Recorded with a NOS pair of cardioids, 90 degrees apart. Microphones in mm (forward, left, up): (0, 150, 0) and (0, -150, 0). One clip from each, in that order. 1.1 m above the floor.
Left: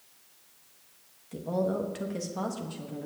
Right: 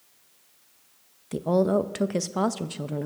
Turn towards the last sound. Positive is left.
turn(degrees=-55)